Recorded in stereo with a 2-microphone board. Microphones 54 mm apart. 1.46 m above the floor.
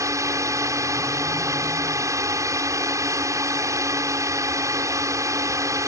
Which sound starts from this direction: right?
A drone, at 0.0 s.